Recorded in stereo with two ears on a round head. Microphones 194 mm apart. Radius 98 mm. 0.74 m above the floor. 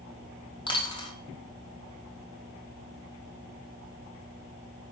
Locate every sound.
0.7 s a dropped coin: 25° left (ahead or behind), 1.7 m